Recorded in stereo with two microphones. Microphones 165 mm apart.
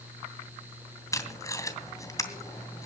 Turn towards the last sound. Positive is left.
turn(degrees=20)  # may be behind; listen again after turning